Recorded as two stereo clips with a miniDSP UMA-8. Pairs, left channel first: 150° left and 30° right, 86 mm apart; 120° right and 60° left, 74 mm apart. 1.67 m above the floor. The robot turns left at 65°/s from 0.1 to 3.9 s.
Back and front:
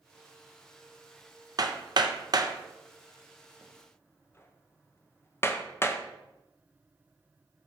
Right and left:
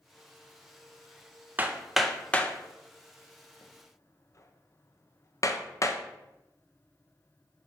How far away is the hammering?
About 0.7 m.